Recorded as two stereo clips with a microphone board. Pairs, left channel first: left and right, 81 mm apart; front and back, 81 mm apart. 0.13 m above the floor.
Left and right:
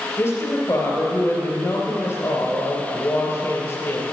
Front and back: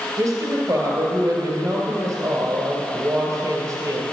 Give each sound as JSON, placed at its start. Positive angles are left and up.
{"t": 0.2, "sound": "a woman speaking", "azimuth_deg": 145, "distance_m": 2.5}